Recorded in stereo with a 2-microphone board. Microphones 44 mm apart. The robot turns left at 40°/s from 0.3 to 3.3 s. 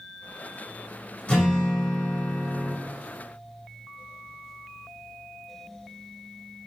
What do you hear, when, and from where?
1.3 s a guitar: 25° left (ahead or behind), 1.3 m; by 2.8 s centre (ahead or behind), 1.3 m